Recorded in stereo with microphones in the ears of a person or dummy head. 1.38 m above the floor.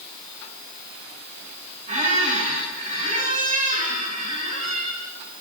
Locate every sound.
1.9 s a squeak: 35° right (ahead or behind), 2 m